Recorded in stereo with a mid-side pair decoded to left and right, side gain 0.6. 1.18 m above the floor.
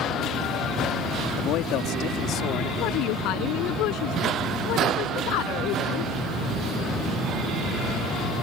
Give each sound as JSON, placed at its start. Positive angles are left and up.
{"t": 1.4, "sound": "a man speaking", "azimuth_deg": 70}
{"t": 2.8, "sound": "a woman speaking", "azimuth_deg": 70}